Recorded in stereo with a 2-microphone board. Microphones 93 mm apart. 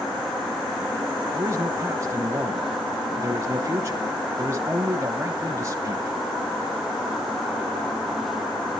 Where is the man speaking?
30° right (ahead or behind), 1.1 m.